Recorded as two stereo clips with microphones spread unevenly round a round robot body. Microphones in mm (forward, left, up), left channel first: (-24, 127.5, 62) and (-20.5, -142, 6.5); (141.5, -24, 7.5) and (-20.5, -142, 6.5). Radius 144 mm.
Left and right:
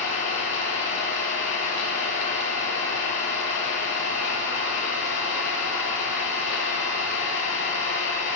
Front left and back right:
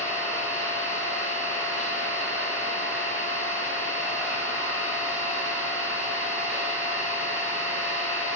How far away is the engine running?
About 1.4 m.